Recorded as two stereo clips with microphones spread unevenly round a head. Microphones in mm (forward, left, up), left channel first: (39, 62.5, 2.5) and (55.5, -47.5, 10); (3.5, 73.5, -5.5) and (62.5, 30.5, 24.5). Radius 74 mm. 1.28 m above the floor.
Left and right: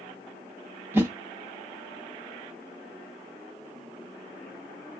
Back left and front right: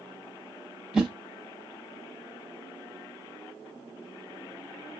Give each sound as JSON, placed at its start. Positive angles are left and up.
{"t": 0.9, "sound": "a whoosh", "azimuth_deg": -35, "distance_m": 1.1}